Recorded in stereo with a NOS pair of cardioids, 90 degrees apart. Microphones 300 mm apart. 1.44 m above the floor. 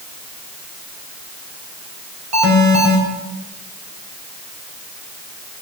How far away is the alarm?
About 6 m.